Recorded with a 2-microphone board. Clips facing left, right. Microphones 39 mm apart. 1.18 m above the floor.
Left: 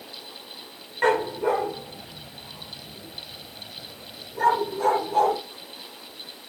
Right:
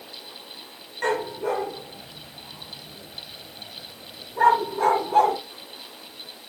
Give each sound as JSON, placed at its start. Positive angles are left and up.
{"t": 1.0, "sound": "a dog barking", "side_deg": 25, "distance_m": 1.4}